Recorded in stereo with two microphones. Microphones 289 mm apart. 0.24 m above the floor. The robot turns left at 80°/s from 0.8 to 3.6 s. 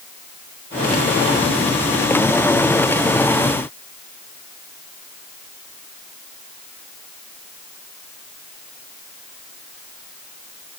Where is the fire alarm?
I don't hear a fire alarm.